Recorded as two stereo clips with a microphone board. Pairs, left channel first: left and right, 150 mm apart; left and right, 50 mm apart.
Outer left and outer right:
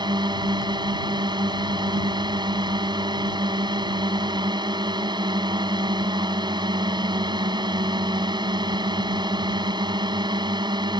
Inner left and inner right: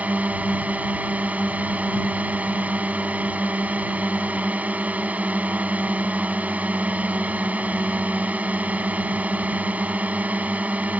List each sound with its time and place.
0.0 s a drone: 30° right (ahead or behind)